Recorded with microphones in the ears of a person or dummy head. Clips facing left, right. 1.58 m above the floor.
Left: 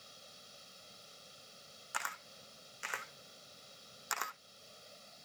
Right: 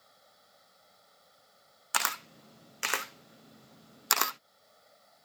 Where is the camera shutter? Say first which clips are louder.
Right 9 dB; 75° right (ahead or behind).